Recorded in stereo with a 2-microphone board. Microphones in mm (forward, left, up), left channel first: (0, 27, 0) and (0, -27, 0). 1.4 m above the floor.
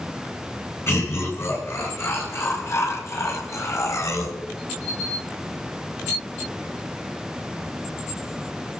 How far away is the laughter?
About 9 m.